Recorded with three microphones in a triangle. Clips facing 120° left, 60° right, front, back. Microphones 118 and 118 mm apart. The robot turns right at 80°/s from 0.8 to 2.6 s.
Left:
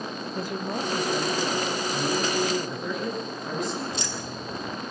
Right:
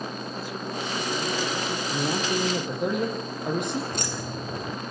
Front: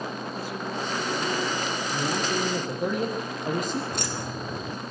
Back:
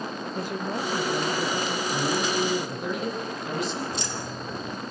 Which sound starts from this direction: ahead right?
Keys jangling, at 3.9 s.